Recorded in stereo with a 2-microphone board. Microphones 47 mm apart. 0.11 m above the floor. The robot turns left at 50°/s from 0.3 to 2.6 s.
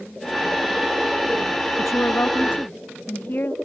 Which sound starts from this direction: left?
A woman speaking, at 1.8 s.